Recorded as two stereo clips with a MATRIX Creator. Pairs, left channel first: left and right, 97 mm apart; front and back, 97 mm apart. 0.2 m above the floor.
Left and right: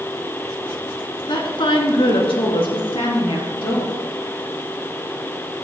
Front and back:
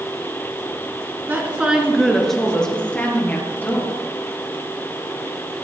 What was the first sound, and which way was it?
A woman speaking, 115° left.